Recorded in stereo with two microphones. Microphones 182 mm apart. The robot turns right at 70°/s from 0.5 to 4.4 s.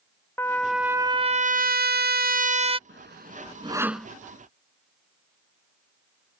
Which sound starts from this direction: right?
Sawing, at 2.9 s.